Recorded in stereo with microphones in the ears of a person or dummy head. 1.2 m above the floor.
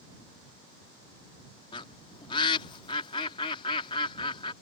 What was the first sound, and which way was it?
A bird, 25° left (ahead or behind).